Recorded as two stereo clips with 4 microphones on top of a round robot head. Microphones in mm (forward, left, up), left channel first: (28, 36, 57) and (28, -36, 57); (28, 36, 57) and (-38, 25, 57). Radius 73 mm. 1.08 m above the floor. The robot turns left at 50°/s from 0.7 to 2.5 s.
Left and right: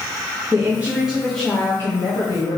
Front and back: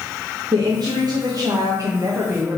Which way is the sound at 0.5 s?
155° right.